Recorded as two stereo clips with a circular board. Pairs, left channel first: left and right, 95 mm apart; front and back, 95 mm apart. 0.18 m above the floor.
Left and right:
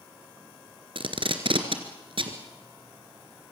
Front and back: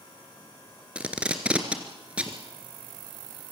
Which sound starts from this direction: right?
Tape being pulled, at 0.9 s.